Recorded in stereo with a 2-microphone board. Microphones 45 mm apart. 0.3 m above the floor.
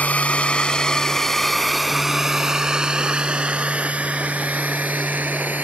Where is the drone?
35° left (ahead or behind); by 5.6 s 40° right (ahead or behind).